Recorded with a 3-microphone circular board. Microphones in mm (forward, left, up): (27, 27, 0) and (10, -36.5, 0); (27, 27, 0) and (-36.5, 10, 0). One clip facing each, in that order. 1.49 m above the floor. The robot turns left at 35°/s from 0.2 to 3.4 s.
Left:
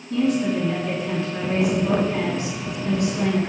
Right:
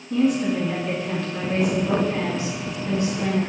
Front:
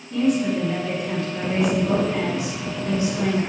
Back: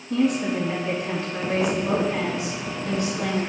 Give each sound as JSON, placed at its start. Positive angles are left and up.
{"t": 0.1, "sound": "a woman speaking", "azimuth_deg": 180, "distance_m": 2.5}